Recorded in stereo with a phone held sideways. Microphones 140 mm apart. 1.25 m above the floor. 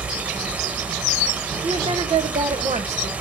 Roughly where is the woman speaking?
Right.